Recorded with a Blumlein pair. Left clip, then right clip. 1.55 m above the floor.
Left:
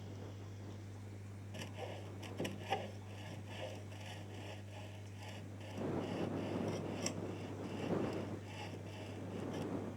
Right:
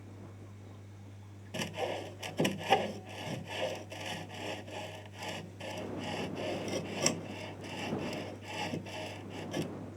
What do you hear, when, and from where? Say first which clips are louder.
1.5 s sawing: right 12 dB; 30° right